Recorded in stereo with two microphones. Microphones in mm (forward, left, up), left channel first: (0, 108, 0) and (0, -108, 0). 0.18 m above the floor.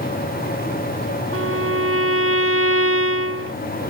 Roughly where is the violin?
Right.